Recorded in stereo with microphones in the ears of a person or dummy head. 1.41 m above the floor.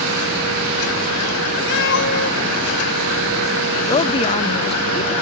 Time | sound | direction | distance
1.7 | a cat meowing | 65° left (ahead or behind) | ?
3.9 | a woman speaking | 30° left (ahead or behind) | ?